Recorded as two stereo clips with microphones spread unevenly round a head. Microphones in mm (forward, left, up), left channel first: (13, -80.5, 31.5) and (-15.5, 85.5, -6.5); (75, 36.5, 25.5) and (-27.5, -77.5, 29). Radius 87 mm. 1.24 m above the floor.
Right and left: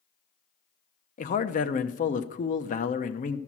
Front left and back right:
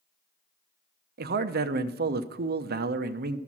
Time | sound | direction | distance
1.2 | a man speaking | 130° right | 0.9 m